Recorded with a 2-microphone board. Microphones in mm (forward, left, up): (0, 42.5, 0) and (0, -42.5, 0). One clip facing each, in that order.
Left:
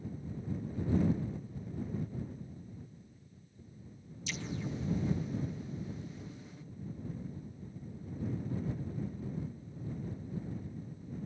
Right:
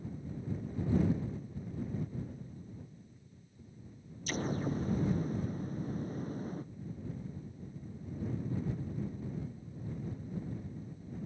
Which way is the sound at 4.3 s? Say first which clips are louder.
Right 5 dB; 45° right (ahead or behind).